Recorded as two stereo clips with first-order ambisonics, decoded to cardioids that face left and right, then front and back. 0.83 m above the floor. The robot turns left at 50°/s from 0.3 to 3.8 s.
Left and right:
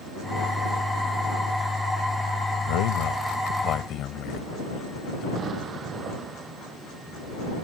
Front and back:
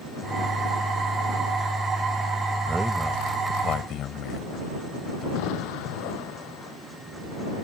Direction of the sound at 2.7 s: 105° left.